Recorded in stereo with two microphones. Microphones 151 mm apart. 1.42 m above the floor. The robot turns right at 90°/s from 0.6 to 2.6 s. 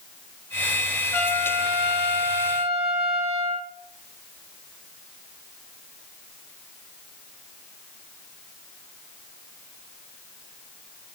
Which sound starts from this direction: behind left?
A trumpet, at 1.1 s.